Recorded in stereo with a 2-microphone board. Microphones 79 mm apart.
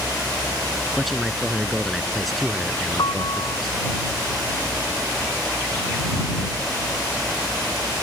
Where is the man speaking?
Centre (ahead or behind).